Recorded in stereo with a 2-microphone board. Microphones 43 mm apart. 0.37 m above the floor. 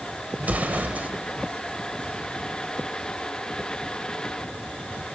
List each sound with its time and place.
0.4 s an explosion: 40° right (ahead or behind), 1.0 m